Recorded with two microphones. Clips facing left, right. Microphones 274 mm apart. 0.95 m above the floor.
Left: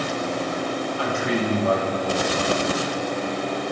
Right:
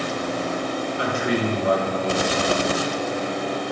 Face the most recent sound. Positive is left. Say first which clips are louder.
# right 2 dB
turn(degrees=-20)  # may be behind; listen again after turning